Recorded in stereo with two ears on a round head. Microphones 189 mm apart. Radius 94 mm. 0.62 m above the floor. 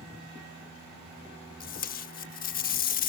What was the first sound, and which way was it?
Tape being pulled, 45° left (ahead or behind).